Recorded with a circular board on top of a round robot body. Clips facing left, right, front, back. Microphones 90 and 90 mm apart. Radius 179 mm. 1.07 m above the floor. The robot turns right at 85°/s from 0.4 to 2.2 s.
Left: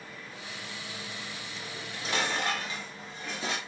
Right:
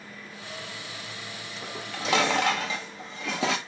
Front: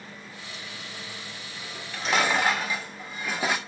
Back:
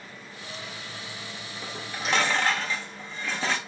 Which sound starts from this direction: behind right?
Dishes clattering, at 1.6 s.